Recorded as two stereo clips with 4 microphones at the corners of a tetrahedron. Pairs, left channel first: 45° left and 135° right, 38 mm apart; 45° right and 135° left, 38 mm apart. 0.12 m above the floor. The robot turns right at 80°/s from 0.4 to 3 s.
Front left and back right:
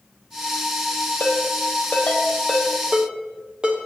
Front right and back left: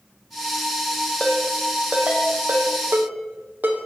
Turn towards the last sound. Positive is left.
turn(degrees=165)